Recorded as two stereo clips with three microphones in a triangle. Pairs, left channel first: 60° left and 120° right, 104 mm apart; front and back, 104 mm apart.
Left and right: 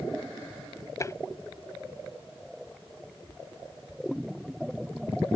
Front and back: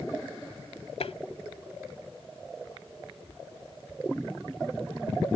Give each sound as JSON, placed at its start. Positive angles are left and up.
{"t": 1.0, "sound": "tapping", "azimuth_deg": 0}